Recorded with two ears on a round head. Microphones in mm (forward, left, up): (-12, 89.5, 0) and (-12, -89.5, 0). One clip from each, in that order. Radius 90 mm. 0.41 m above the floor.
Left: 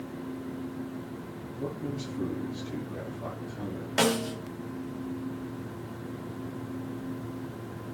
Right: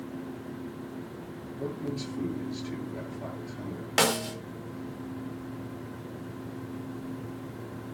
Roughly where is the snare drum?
Right.